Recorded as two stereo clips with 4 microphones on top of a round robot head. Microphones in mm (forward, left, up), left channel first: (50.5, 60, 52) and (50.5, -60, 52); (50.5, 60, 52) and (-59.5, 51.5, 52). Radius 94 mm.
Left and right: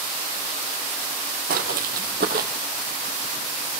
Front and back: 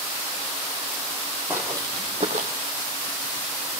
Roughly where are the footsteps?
Right.